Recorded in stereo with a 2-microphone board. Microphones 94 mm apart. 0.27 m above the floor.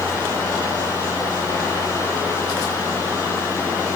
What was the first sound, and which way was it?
Only background noise.